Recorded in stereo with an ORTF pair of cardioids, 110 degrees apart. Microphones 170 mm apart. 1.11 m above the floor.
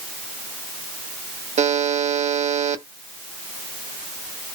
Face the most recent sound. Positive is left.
turn(degrees=-45)